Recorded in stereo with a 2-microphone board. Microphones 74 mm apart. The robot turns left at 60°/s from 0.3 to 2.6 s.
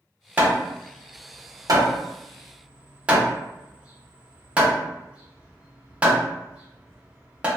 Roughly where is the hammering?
Right.